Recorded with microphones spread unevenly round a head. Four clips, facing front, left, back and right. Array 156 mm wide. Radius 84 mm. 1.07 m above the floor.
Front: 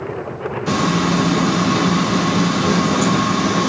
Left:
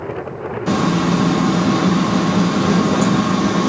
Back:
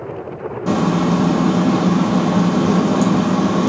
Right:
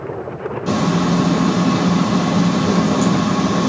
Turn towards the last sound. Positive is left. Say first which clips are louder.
# left 1 dB, back 2 dB
turn(degrees=180)